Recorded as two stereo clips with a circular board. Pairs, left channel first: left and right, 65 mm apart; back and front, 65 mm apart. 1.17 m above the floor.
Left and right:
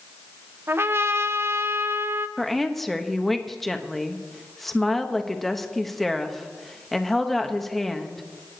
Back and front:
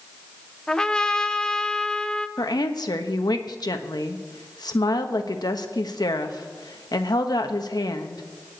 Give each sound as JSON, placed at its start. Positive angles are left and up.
{"t": 0.7, "sound": "a trumpet", "azimuth_deg": -105, "distance_m": 0.7}
{"t": 2.4, "sound": "a woman speaking", "azimuth_deg": 175, "distance_m": 1.2}